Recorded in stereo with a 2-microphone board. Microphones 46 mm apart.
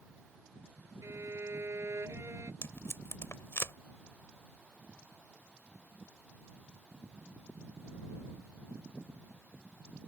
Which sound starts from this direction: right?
A violin, at 1.0 s.